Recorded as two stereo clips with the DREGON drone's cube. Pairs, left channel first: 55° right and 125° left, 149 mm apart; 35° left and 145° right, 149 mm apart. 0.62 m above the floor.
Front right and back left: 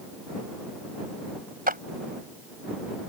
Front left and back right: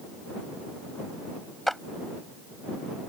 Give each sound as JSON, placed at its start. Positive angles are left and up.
{"t": 1.7, "sound": "a clap", "azimuth_deg": 125}